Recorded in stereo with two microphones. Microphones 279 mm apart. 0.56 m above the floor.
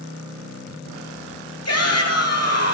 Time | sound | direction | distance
1.6 | a shout | 55° left (ahead or behind) | 8 m